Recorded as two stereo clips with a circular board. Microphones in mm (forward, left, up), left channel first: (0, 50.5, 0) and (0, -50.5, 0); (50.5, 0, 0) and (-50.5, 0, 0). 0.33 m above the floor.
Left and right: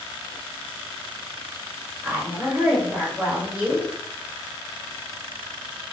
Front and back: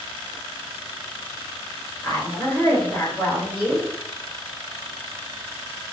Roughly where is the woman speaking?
Ahead right.